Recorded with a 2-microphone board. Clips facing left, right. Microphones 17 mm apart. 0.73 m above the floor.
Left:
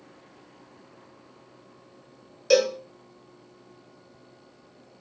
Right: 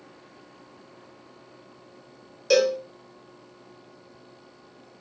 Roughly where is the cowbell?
Centre.